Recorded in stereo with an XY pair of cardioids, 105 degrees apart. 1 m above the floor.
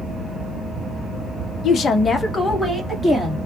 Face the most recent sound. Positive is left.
turn(degrees=0)